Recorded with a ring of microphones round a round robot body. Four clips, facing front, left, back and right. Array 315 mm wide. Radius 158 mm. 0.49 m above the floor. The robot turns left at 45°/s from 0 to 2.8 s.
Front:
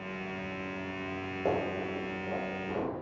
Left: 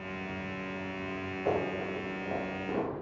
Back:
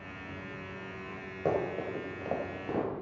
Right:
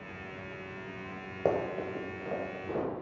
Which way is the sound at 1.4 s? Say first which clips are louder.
Right 2 dB, back 1 dB; 95° right.